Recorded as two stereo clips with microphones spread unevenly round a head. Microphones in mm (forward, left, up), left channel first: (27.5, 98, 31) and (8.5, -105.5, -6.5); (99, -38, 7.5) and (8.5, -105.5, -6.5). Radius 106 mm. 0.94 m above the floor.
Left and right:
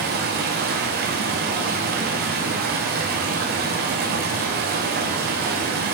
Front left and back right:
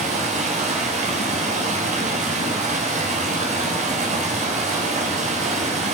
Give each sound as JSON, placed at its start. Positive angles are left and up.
{"t": 0.0, "sound": "running water", "azimuth_deg": -140, "distance_m": 4.0}